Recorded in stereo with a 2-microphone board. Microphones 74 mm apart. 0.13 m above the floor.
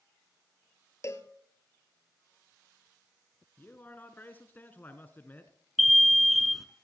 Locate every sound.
1.0 s a cowbell: 40° left (ahead or behind), 1.0 m
3.6 s a man speaking: 25° left (ahead or behind), 1.3 m
5.8 s an alarm: centre (ahead or behind), 0.7 m